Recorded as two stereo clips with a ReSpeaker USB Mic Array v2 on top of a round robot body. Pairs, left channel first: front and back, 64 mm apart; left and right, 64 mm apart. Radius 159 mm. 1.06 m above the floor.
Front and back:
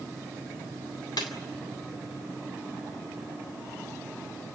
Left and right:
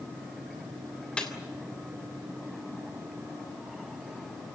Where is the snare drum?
15° left, 3.5 m.